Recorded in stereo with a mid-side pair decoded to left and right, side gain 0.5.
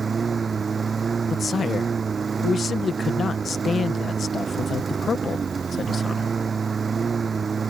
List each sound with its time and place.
0.0 s a lawn mower: 30° right
1.3 s a man speaking: 40° left